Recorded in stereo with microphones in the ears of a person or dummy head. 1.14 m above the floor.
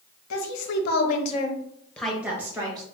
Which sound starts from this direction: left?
A woman speaking, at 0.3 s.